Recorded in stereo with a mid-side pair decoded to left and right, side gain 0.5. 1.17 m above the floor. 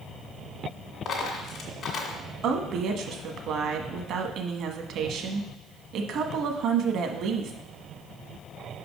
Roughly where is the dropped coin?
Ahead left.